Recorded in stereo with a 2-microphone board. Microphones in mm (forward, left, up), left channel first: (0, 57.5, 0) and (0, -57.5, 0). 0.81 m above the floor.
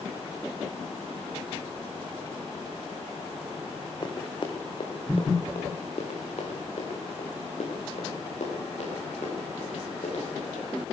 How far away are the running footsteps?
About 3 m.